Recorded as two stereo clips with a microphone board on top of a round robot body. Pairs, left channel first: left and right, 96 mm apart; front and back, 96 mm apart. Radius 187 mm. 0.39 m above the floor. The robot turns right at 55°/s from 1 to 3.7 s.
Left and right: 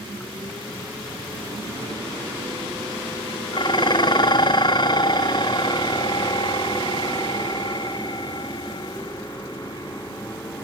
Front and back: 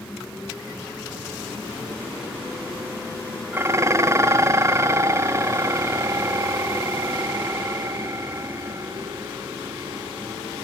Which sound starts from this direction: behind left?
Dishes clattering, at 3.5 s.